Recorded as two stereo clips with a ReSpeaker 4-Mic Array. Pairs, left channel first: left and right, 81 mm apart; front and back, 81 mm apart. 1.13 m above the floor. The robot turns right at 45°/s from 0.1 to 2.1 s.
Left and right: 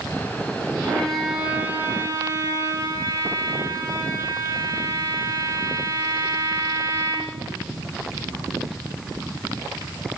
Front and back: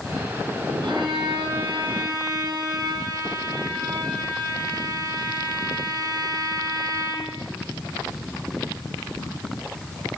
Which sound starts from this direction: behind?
A violin, at 0.8 s.